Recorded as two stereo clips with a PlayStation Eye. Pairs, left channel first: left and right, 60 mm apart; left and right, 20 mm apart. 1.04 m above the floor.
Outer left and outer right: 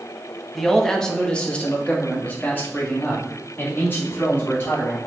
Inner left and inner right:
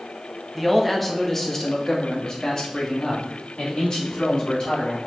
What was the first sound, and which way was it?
A man speaking, centre (ahead or behind).